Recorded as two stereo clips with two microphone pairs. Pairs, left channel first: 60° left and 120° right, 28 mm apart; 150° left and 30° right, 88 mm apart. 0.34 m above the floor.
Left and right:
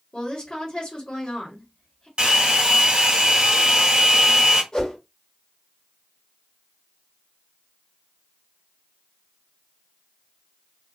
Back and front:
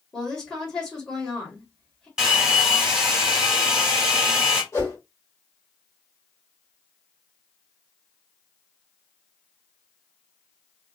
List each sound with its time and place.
0.1 s a woman speaking: 80° left, 1.5 m
2.2 s a hair dryer: 110° right, 1.5 m
4.7 s a whoosh: 105° left, 2 m